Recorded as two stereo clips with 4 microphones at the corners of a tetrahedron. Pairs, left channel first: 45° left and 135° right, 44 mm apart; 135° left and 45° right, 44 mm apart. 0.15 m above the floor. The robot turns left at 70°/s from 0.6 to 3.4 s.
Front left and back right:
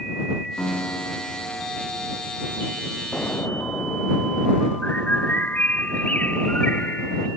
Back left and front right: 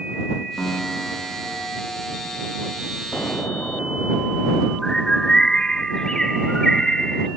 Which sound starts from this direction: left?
An explosion, at 3.1 s.